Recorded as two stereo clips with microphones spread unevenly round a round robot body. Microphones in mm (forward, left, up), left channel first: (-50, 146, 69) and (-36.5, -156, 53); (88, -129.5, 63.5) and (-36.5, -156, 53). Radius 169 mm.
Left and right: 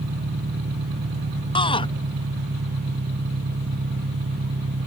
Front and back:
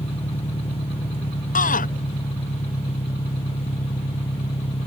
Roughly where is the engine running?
Ahead right.